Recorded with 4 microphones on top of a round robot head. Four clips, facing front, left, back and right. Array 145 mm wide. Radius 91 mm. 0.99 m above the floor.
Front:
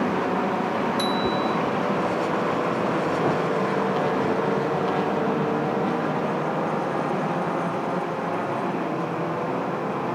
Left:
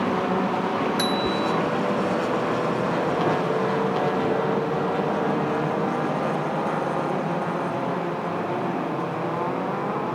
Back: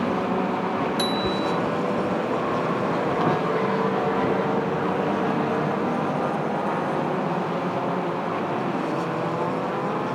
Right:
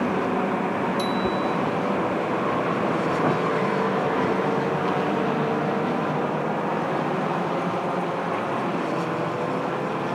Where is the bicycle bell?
130° left.